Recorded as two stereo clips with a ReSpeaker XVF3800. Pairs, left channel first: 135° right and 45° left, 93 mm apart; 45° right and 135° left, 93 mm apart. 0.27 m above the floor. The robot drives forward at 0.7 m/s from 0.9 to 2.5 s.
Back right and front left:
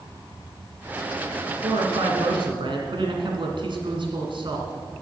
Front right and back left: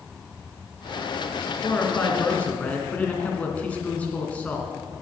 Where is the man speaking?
25° left, 3 m; by 4.7 s 30° left, 2.5 m.